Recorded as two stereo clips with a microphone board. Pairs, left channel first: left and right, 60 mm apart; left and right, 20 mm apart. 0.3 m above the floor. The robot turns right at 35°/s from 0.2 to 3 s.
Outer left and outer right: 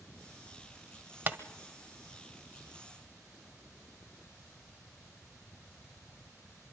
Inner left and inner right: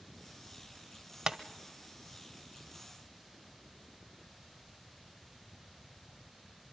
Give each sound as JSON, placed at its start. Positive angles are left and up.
{"t": 1.3, "sound": "tapping", "side_deg": -25, "distance_m": 1.3}